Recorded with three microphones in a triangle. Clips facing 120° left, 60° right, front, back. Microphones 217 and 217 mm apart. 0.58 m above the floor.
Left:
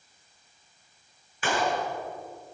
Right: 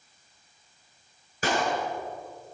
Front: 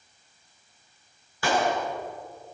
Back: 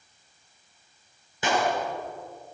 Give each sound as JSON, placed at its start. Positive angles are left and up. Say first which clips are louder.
{"t": 1.4, "sound": "a clap", "louder": "even, front 1 dB", "azimuth_deg": -110, "distance_m": 8.0}